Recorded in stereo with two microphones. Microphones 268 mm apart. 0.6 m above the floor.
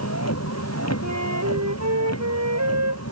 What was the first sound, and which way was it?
A vehicle, 65° left (ahead or behind).